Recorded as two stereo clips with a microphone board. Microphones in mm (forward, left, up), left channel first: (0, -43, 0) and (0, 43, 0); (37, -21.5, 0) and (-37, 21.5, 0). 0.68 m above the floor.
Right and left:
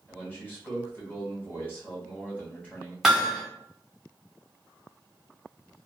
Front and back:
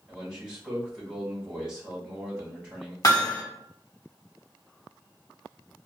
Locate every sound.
0.1 s a man speaking: 140° right, 1.1 m
3.0 s hammering: 10° left, 0.7 m